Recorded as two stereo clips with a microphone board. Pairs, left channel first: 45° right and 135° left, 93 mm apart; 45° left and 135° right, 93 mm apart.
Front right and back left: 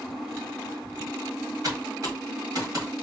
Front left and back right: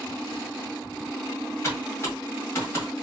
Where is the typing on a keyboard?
100° left, 1.6 m.